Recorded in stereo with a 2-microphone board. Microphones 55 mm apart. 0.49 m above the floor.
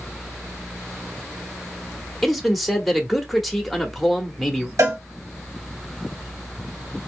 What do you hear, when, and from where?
2.2 s a man speaking: centre (ahead or behind), 1.1 m
4.8 s a cowbell: 75° right (ahead or behind), 2.5 m